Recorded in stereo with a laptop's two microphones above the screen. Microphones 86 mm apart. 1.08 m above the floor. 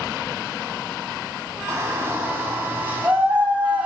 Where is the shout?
30° right (ahead or behind), 6.5 m; by 3.9 s 20° right (ahead or behind), 6.5 m.